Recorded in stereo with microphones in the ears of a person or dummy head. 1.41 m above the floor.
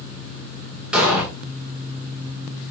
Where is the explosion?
Centre (ahead or behind), 2 m.